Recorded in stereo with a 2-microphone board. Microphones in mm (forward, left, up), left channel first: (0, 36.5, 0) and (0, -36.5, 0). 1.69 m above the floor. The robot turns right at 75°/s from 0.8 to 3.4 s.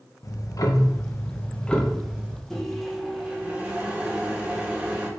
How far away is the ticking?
About 0.5 m.